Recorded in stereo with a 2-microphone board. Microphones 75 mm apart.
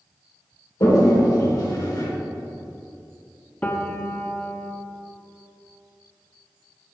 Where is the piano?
20° left (ahead or behind), 0.6 m.